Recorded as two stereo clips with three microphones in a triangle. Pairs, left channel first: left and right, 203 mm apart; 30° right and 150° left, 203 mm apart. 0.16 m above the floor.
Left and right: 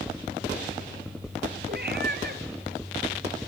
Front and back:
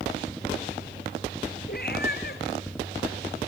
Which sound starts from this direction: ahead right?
A cat meowing, at 1.7 s.